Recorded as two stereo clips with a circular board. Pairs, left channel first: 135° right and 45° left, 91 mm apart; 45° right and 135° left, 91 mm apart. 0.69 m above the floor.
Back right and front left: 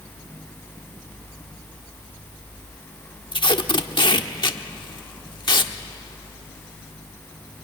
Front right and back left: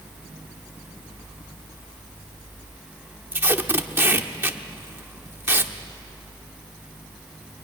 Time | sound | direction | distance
3.3 | tape being pulled | 160° right | 1.1 m